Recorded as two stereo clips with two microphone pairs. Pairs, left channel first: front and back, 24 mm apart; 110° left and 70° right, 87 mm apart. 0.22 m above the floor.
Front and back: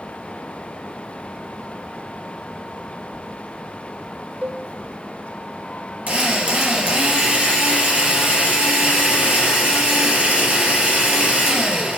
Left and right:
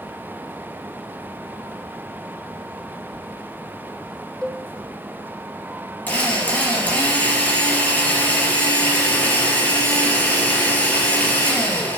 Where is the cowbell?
165° right, 1.7 m.